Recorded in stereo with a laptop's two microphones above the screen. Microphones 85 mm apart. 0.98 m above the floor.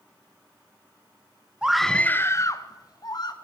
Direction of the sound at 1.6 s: 10° right (ahead or behind).